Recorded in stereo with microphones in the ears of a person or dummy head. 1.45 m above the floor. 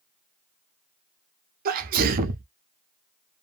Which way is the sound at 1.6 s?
45° right (ahead or behind).